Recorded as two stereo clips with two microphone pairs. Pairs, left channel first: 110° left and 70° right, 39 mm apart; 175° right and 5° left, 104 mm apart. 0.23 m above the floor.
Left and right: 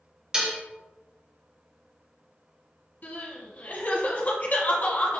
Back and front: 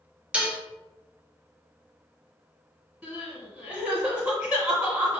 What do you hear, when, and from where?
0.3 s dishes clattering: 50° right, 0.7 m
3.0 s crying: 80° left, 1.4 m